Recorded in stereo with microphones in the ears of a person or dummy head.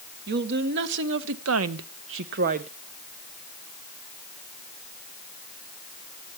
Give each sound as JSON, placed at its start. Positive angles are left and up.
{"t": 0.3, "sound": "a woman speaking", "side_deg": -55, "distance_m": 1.9}